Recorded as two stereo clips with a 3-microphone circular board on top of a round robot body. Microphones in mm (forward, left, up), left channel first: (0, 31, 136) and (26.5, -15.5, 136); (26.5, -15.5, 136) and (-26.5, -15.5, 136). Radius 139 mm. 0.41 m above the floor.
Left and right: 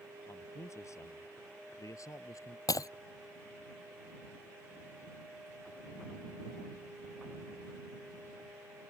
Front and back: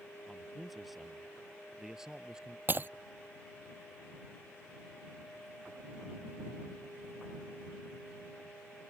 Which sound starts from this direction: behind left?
Breaking glass, at 2.7 s.